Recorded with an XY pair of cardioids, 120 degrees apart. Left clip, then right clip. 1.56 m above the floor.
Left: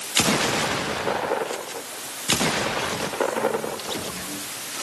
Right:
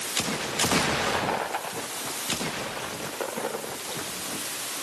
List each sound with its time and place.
Only background noise.